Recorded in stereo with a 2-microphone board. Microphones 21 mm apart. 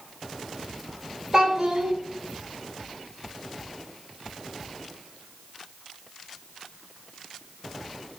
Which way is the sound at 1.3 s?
20° right (ahead or behind).